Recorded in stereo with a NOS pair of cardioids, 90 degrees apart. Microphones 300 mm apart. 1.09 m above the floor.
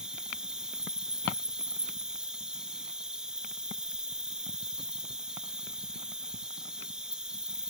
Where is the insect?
Straight ahead, 4.5 m.